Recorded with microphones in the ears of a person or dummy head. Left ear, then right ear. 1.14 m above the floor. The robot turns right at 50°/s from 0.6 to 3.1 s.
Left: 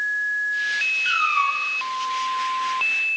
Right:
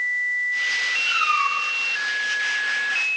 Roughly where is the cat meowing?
Ahead left.